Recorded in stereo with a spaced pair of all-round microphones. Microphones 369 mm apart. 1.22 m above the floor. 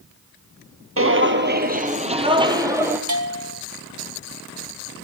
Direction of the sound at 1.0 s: 35° right (ahead or behind).